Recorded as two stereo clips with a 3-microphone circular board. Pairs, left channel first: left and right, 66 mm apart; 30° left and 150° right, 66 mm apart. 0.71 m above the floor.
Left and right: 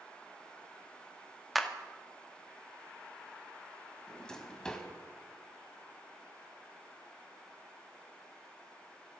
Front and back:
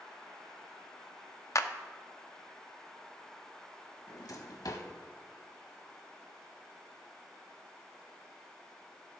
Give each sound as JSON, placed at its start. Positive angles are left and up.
{"t": 1.6, "sound": "a clap", "azimuth_deg": 0, "distance_m": 0.7}
{"t": 4.1, "sound": "a drawer", "azimuth_deg": 10, "distance_m": 1.1}